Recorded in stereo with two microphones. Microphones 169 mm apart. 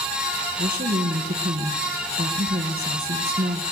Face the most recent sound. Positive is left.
turn(degrees=-60)  # may be behind; listen again after turning